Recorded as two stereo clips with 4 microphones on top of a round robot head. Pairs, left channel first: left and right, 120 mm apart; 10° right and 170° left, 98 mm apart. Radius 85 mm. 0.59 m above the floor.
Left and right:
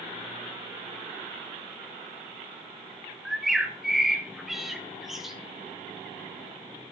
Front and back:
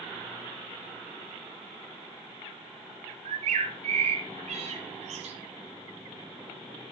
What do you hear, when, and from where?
3.2 s a bird: 175° right, 1.0 m